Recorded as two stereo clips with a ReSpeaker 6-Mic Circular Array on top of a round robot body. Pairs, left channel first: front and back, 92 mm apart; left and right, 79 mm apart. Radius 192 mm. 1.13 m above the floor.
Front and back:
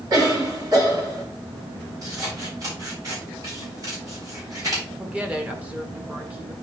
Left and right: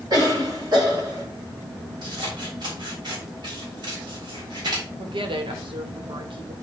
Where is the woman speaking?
105° right, 1.9 m.